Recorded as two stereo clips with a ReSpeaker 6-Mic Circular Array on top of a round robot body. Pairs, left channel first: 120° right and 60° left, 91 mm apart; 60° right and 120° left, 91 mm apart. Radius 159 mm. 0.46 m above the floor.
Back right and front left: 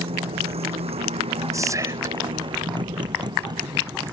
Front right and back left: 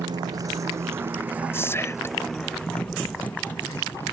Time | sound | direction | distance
0.0 | a motorcycle | 75° left | ?
1.5 | whispering | 5° left | ?